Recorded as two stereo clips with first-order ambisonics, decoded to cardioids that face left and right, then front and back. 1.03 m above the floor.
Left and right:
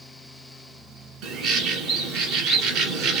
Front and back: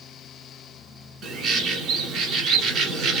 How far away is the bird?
About 2.0 m.